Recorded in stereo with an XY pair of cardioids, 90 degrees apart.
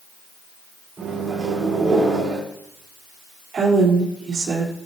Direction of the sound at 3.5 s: 55° right.